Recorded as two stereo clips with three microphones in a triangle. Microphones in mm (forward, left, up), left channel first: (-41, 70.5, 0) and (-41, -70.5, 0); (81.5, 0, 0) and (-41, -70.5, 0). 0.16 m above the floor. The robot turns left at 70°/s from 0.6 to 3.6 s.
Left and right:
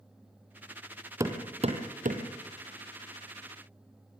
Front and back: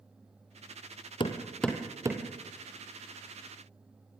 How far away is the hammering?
About 3 m.